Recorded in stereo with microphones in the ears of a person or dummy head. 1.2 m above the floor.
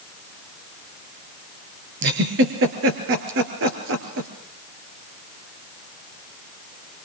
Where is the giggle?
70° right (ahead or behind), 4 m.